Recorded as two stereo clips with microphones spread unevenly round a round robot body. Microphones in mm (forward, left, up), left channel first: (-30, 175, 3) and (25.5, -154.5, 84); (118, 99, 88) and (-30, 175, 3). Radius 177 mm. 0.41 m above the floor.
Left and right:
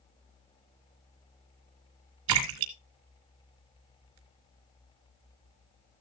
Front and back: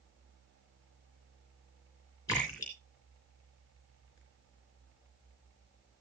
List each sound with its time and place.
2.3 s a splash: 110° right, 2.5 m